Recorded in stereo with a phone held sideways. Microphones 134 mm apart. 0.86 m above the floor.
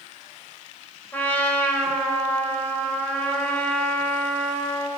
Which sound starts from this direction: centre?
A trumpet, at 1.1 s.